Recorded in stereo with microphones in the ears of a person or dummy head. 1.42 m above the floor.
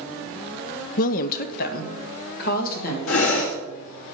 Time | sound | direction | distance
1.0 | a woman speaking | 50° left (ahead or behind) | 0.5 m
3.1 | breathing | 75° left (ahead or behind) | 1.9 m